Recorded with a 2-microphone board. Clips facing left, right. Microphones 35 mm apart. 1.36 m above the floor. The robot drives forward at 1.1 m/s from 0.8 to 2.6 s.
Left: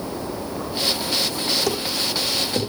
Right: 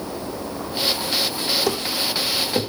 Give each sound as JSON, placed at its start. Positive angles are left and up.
{"t": 1.7, "sound": "running footsteps", "side_deg": -10, "distance_m": 3.5}